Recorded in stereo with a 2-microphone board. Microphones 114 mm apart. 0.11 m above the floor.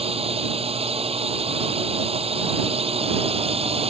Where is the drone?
60° right (ahead or behind).